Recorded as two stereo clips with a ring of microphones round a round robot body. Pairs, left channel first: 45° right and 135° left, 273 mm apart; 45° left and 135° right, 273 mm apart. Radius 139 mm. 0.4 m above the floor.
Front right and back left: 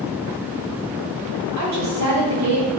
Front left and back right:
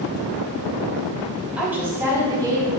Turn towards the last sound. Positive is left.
turn(degrees=150)